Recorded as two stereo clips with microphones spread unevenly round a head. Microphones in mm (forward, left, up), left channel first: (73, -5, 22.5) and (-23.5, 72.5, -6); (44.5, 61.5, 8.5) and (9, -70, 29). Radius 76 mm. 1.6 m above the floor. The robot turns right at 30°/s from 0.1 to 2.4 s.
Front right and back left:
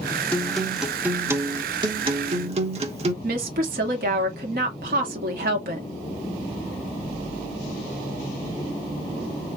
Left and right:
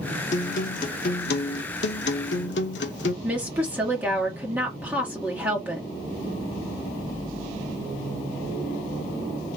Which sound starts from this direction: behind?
A woman speaking, at 3.2 s.